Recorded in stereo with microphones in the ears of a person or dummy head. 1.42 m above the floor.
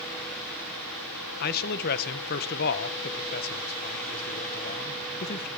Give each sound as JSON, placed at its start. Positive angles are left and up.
{"t": 1.4, "sound": "a man speaking", "side_deg": 50, "distance_m": 1.5}